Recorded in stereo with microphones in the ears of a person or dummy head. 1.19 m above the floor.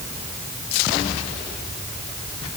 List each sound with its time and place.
Only background noise.